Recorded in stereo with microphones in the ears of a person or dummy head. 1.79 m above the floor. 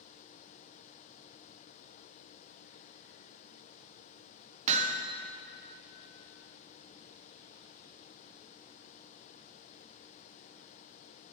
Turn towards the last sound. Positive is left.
turn(degrees=-40)  # may be behind; listen again after turning